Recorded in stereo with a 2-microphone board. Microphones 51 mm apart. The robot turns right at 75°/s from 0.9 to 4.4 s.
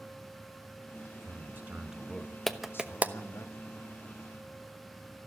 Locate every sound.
1.1 s a man speaking: 75° right, 1.7 m; by 3.5 s 100° left, 1.7 m
2.5 s a clap: 5° left (ahead or behind), 0.9 m; by 3.1 s 35° right (ahead or behind), 0.9 m